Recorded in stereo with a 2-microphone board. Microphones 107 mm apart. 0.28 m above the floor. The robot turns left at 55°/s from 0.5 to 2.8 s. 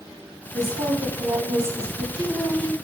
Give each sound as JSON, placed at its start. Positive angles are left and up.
{"t": 0.5, "sound": "a woman speaking", "azimuth_deg": -65, "distance_m": 1.4}